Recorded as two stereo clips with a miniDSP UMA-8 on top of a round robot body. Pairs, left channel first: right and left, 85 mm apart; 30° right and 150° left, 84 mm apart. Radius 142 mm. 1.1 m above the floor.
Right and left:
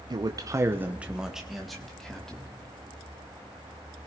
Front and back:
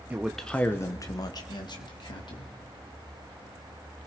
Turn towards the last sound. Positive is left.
turn(degrees=-10)